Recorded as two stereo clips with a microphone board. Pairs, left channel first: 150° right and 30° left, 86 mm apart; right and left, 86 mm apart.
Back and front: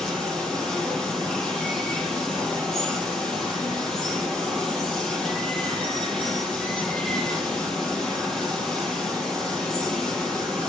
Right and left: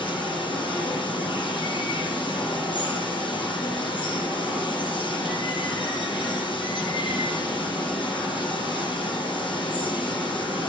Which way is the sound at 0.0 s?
70° right.